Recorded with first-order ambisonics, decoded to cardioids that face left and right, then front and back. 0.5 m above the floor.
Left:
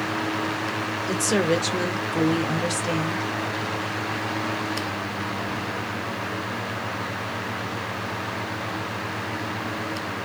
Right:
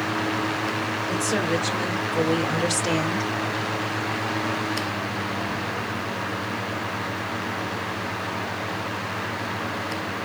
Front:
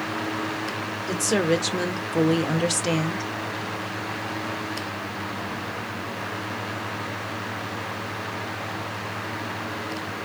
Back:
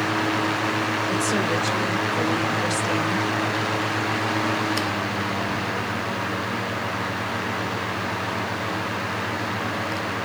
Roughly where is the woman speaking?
Ahead left.